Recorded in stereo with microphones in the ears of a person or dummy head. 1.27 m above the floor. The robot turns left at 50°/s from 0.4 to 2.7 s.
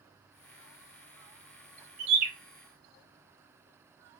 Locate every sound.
2.0 s a bird: 60° right (ahead or behind), 0.8 m; by 2.3 s 50° right (ahead or behind), 0.8 m